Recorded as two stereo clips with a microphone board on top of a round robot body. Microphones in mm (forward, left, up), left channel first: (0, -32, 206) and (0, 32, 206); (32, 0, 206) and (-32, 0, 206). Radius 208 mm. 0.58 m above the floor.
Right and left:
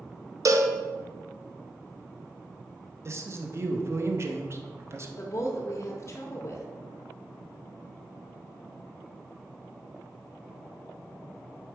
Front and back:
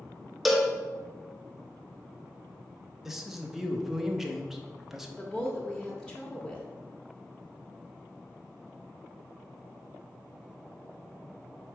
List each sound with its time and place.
0.5 s a cowbell: 90° left, 0.7 m
3.0 s a man speaking: 95° left, 0.8 m
5.2 s a woman speaking: 75° right, 0.8 m